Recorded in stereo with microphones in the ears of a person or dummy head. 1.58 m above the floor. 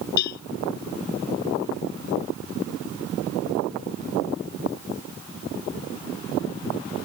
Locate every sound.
0.2 s a cowbell: 50° left (ahead or behind)